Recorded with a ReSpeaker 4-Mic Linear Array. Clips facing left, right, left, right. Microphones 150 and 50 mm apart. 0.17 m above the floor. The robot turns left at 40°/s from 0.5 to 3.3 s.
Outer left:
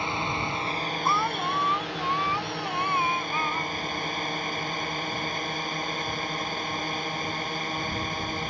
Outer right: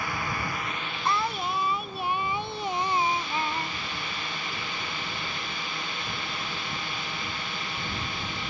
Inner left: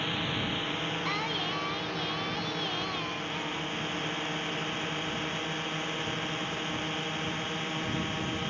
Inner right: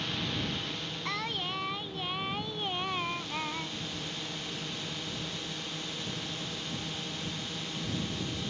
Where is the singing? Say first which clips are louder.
Even, inner right 1 dB; 5° left (ahead or behind); by 3.8 s 30° right (ahead or behind).